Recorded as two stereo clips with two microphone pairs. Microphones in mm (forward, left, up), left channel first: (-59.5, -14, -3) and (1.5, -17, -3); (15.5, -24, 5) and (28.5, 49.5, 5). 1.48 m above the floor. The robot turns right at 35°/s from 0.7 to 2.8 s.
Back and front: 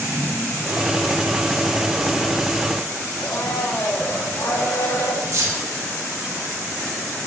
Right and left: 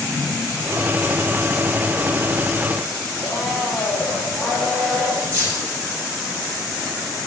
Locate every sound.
3.2 s a blender: 175° left, 6 m
5.3 s keys jangling: 20° left, 5.5 m